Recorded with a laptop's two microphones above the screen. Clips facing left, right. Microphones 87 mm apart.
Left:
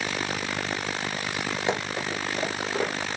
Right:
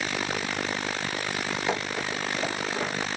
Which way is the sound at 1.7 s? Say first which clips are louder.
Left 2 dB; 25° left (ahead or behind).